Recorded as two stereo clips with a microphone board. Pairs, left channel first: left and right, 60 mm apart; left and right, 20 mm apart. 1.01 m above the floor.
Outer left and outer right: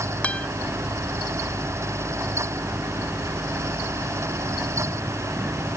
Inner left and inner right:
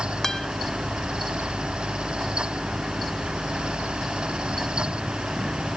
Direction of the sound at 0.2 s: 20° left (ahead or behind).